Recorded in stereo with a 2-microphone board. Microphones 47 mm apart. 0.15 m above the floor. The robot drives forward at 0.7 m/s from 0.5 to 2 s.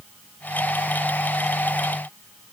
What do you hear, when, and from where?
Only background noise.